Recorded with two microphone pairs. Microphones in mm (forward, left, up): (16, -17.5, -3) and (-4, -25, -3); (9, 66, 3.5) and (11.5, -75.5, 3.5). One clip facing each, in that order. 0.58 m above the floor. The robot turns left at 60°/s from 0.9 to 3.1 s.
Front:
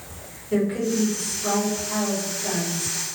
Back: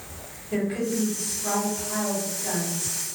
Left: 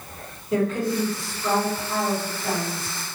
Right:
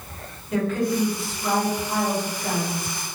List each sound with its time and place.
0.5 s a woman speaking: 35° left, 1.6 m; by 2.9 s 85° right, 1.6 m